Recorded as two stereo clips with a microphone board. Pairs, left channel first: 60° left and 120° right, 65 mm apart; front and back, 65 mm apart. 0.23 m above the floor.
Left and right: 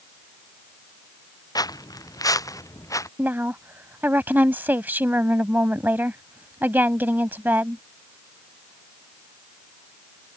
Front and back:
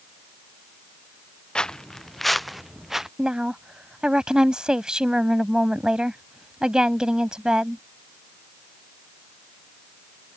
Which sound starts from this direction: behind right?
A woman speaking, at 3.2 s.